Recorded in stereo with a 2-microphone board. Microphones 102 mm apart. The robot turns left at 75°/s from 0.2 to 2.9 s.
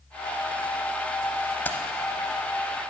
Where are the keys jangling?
20° left (ahead or behind), 0.8 m; by 1.8 s 15° left (ahead or behind), 0.8 m.